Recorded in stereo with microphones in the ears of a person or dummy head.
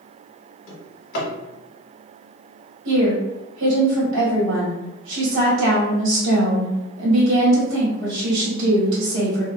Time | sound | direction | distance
0.7 | a drawer | 45° left (ahead or behind) | 1.5 m
2.9 | a woman speaking | 85° right | 1.5 m